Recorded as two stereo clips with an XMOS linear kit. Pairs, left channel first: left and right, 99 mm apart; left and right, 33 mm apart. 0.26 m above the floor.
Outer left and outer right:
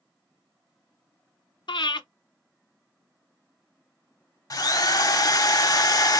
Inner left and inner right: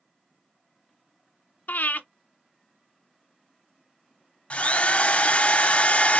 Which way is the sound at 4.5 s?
35° left (ahead or behind).